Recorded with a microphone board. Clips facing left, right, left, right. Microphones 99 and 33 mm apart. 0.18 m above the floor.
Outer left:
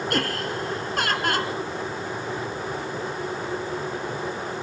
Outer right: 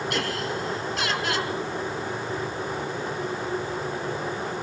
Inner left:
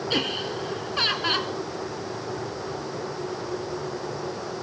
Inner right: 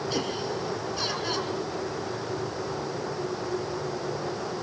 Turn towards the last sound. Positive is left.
turn(degrees=45)  # may be behind; listen again after turning